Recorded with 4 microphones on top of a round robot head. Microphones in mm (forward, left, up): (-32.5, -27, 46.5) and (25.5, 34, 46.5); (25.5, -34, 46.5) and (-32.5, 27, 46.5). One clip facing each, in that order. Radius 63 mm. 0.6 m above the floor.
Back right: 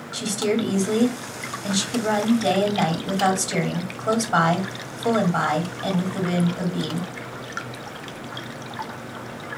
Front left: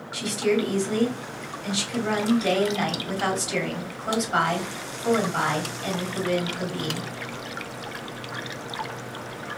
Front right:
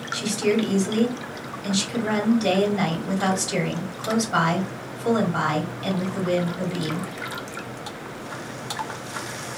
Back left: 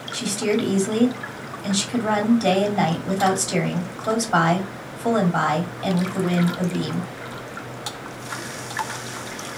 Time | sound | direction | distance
0.1 | a woman speaking | 175° left | 1.4 m